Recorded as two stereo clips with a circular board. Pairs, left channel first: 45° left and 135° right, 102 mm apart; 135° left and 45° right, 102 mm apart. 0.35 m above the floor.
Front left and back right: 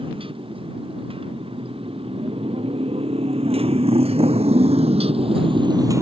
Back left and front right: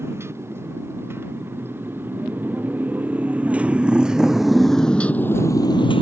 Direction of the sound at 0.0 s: 110° right.